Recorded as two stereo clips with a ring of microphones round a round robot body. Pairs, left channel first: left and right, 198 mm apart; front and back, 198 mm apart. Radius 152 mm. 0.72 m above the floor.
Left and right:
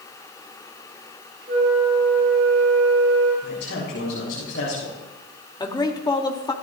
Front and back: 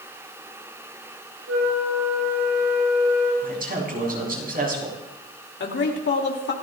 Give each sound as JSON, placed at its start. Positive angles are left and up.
{"t": 1.5, "sound": "a flute", "azimuth_deg": -150, "distance_m": 8.5}
{"t": 3.4, "sound": "a man speaking", "azimuth_deg": 135, "distance_m": 7.5}
{"t": 5.6, "sound": "a man speaking", "azimuth_deg": 20, "distance_m": 2.5}